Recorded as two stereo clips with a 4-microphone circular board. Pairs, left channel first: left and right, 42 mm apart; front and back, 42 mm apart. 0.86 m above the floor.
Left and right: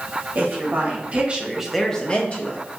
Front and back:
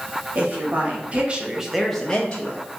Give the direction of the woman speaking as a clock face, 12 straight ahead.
4 o'clock.